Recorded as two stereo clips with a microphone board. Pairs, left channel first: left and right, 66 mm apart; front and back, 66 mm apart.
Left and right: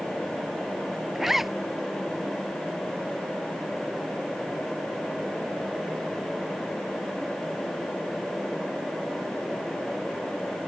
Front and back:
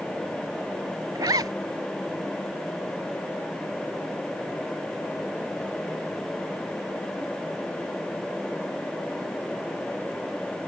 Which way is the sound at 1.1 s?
175° right.